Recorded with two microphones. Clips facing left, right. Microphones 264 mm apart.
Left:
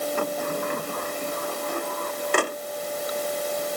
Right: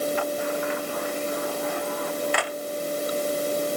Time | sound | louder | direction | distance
0.2 | a sliding door | even | 50° left (ahead or behind) | ?